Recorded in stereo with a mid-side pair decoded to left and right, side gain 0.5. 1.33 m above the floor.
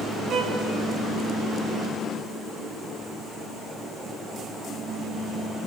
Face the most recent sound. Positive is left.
turn(degrees=-55)